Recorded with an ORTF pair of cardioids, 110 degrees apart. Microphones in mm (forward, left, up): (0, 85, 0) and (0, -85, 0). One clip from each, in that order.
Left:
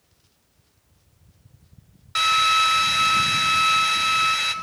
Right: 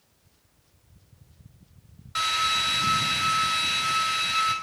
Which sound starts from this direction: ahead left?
A drill, at 2.1 s.